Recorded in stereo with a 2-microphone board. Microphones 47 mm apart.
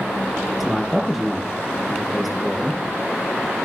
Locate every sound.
0.6 s a man speaking: centre (ahead or behind), 5 m